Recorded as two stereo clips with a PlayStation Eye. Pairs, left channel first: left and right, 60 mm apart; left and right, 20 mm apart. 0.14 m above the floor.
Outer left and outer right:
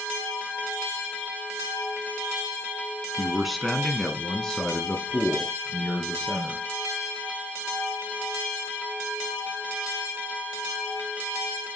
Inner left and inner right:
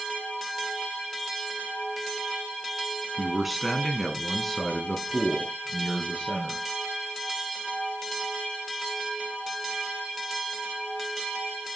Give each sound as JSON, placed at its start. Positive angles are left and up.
{"t": 3.2, "sound": "a man speaking", "side_deg": -5, "distance_m": 1.2}